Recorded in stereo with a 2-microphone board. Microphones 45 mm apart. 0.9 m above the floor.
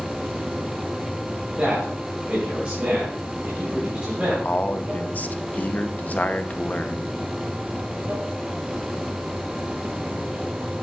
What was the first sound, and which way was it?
Running water, 50° right (ahead or behind).